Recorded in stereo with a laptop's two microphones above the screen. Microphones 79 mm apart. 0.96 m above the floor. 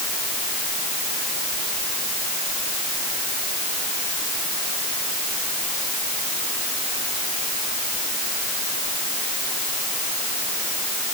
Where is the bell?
I don't hear a bell.